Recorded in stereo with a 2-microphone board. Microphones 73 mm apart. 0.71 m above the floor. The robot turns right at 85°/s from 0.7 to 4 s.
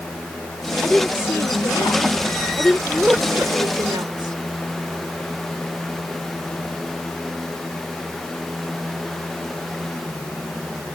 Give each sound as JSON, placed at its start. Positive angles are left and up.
{"t": 0.8, "sound": "a woman speaking", "azimuth_deg": 0}